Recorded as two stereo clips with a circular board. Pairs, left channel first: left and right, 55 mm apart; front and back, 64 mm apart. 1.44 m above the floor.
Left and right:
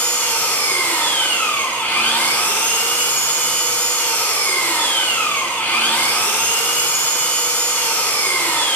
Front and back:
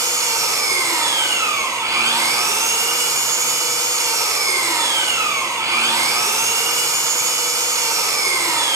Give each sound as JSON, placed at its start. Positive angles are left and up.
{"t": 0.0, "sound": "an engine running", "azimuth_deg": 150, "distance_m": 5.0}